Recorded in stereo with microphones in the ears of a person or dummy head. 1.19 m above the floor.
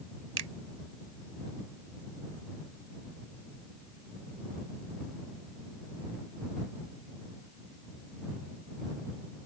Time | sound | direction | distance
0.4 | a finger snap | 85° right | ?